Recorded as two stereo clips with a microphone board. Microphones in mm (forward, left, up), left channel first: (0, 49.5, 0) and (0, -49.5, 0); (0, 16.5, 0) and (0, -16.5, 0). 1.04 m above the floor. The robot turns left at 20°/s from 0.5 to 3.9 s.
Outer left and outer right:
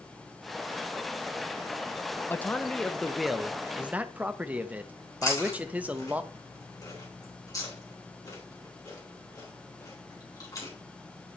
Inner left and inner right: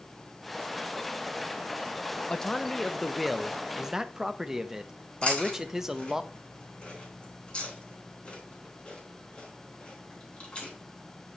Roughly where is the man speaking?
Ahead.